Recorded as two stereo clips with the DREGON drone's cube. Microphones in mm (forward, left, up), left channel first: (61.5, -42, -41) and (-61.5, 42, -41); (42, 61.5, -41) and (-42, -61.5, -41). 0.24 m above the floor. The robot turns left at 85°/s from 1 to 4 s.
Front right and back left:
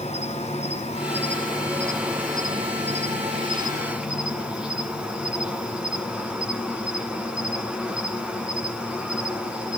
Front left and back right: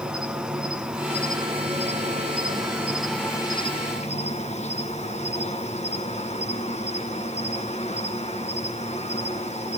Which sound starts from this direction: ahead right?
An insect, at 0.0 s.